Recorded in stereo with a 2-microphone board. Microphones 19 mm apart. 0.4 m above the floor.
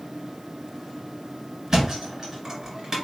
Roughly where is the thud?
Right.